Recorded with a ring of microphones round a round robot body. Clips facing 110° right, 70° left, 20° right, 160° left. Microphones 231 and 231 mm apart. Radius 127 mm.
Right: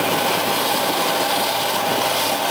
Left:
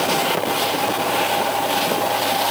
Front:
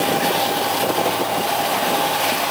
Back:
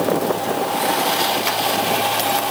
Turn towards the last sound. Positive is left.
No sound to turn to.